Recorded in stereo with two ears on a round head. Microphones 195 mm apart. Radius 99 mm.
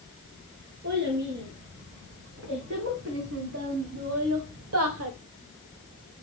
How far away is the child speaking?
About 5 m.